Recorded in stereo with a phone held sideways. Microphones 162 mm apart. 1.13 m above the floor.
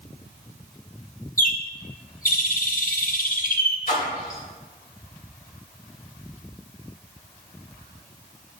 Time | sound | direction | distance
1.4 | a bird | 55° left (ahead or behind) | 1.0 m
3.9 | a splash | 55° left (ahead or behind) | 2.5 m